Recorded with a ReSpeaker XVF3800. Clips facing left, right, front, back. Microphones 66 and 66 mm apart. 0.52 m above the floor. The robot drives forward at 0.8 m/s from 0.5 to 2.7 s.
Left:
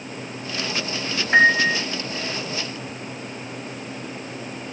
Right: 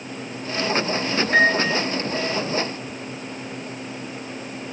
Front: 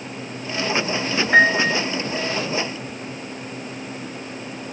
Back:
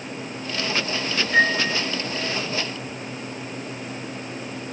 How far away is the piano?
About 3 m.